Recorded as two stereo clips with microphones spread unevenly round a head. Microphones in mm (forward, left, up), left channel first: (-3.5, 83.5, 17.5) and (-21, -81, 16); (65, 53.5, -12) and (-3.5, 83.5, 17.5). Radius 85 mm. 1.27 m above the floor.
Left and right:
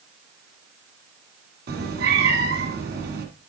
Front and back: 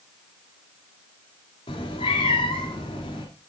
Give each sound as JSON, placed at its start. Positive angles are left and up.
{"t": 1.7, "sound": "a cat meowing", "azimuth_deg": -85, "distance_m": 1.7}